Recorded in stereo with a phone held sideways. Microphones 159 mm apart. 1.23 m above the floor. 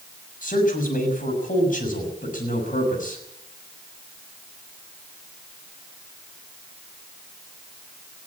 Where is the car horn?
No car horn in this recording.